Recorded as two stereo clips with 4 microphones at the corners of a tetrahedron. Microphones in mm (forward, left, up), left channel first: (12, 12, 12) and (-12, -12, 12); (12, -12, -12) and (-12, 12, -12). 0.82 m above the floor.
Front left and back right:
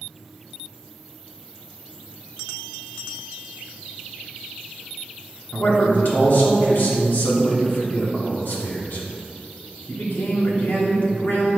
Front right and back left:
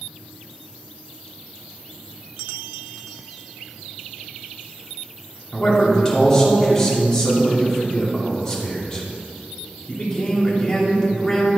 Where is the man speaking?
25° left, 2 m.